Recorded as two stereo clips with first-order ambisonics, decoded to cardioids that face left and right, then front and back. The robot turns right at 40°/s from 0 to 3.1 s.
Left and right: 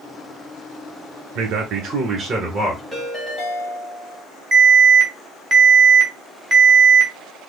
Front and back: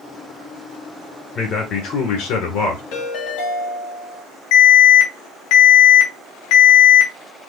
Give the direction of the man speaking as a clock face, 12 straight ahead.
2 o'clock.